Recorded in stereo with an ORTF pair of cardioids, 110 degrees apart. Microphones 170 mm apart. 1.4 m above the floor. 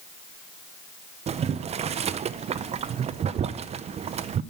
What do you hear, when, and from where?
1.3 s boiling: 40° right, 0.6 m